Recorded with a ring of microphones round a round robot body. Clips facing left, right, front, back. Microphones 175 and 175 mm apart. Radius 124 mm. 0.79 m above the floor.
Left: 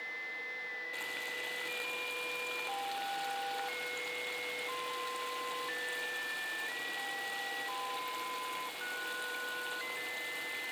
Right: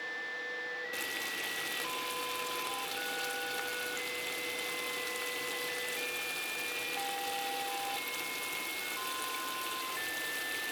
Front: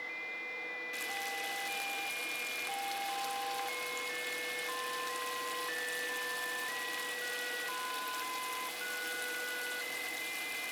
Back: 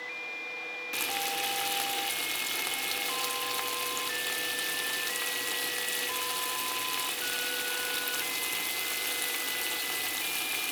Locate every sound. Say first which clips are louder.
0.9 s frying: right 3 dB, back 8 dB; 150° right, 1.3 m